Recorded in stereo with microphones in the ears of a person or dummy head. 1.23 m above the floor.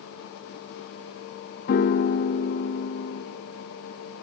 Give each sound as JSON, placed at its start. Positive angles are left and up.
{"t": 1.7, "sound": "a piano", "side_deg": 45, "distance_m": 0.6}